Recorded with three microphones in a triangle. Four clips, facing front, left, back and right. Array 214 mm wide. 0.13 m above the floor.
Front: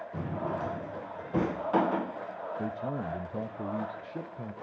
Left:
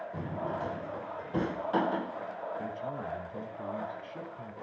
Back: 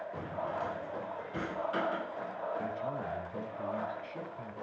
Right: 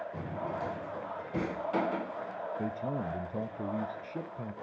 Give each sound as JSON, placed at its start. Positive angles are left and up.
{"t": 0.1, "sound": "a drawer", "azimuth_deg": 15, "distance_m": 0.7}
{"t": 2.6, "sound": "a man speaking", "azimuth_deg": -40, "distance_m": 2.5}